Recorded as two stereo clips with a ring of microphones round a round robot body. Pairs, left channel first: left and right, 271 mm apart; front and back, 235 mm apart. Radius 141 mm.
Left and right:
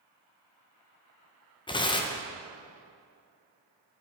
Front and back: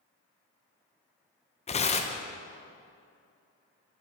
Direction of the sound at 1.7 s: 35° left.